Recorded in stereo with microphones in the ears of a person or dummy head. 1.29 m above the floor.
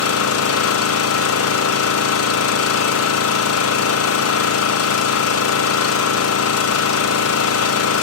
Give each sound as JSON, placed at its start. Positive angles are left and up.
{"t": 0.0, "sound": "an engine running", "side_deg": 70, "distance_m": 0.8}